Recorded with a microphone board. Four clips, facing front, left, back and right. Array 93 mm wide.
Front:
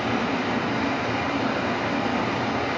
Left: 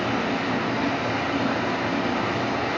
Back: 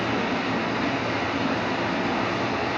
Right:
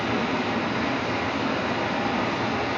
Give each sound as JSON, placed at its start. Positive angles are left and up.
{"t": 0.0, "sound": "running water", "azimuth_deg": 70, "distance_m": 1.4}